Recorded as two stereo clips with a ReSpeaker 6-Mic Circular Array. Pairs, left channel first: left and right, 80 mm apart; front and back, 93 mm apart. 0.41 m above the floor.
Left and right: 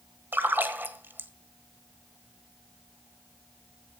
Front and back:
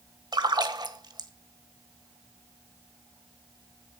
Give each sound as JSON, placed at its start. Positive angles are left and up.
{"t": 0.3, "sound": "a splash", "azimuth_deg": -150, "distance_m": 1.4}